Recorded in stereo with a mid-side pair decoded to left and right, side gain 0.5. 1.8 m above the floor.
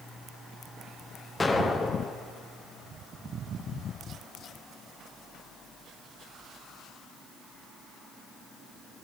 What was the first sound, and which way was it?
An explosion, 20° left.